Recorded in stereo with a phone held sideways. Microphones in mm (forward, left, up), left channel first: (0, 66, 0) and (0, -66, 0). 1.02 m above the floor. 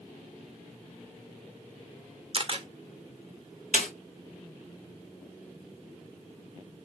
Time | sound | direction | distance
2.3 | a camera shutter | 40° right (ahead or behind) | 0.6 m
3.7 | a snare drum | 60° left (ahead or behind) | 1.6 m